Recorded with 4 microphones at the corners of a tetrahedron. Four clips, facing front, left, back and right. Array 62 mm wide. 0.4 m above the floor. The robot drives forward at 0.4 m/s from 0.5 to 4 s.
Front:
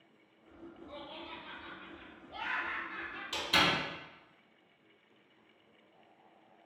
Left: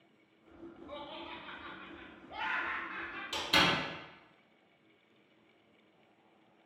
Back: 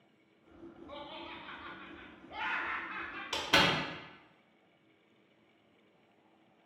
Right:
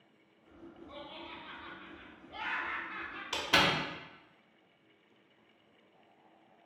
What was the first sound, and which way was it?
Laughter, 95° left.